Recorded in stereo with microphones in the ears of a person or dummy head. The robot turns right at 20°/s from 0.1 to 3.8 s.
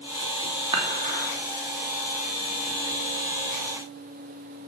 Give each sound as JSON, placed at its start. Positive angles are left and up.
{"t": 0.7, "sound": "dishes clattering", "side_deg": -25, "distance_m": 2.5}